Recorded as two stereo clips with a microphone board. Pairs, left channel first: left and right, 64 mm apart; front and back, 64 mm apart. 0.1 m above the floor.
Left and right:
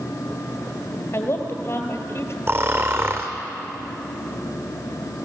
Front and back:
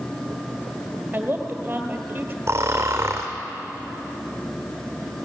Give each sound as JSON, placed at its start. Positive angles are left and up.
{"t": 1.1, "sound": "a woman speaking", "azimuth_deg": 120, "distance_m": 2.0}
{"t": 2.5, "sound": "snoring", "azimuth_deg": -135, "distance_m": 2.5}